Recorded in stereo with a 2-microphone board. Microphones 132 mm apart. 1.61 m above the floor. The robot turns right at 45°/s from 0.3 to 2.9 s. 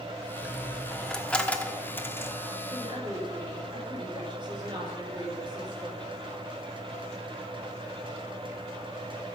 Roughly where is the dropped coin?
Centre.